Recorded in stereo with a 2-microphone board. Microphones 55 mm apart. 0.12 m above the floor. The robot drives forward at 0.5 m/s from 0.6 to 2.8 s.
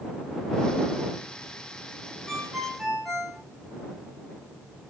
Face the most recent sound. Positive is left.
turn(degrees=-5)  # may be behind; listen again after turning